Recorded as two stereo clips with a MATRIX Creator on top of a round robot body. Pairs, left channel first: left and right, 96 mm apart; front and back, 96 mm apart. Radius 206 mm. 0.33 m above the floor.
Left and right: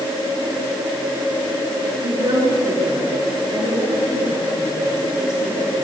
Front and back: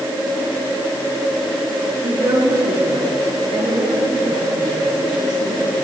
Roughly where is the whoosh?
No whoosh in this recording.